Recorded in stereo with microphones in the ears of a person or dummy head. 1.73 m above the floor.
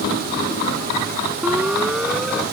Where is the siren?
10° right (ahead or behind).